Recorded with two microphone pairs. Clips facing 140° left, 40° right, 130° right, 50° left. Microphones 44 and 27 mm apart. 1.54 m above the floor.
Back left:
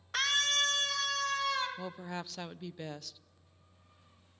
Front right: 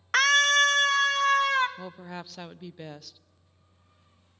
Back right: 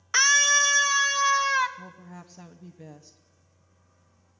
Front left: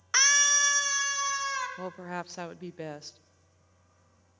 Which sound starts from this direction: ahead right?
A scream, at 0.1 s.